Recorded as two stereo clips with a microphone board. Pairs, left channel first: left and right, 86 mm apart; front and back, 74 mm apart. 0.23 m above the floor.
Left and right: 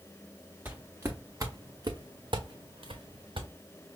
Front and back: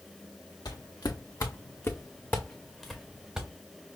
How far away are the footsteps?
About 1.2 m.